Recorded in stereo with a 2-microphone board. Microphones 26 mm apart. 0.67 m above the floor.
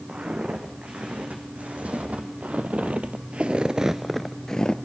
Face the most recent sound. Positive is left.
turn(degrees=30)  # may be behind; listen again after turning